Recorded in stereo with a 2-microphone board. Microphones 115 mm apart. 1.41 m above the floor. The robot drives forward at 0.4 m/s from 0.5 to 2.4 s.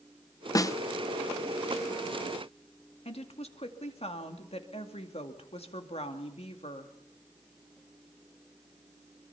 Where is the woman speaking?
60° left (ahead or behind), 2 m.